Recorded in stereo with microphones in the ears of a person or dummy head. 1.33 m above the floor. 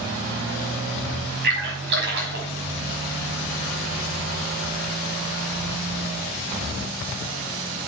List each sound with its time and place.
1.4 s a splash: 65° right (ahead or behind), 5 m